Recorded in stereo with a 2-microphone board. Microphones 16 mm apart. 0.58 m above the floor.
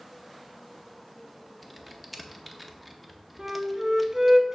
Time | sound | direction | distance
1.6 | typing on a keyboard | 10° right (ahead or behind) | 0.7 m
3.4 | a flute | 35° right (ahead or behind) | 0.7 m